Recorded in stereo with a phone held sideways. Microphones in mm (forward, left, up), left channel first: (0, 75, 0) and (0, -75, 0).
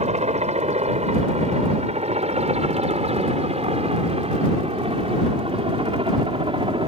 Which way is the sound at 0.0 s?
45° right (ahead or behind).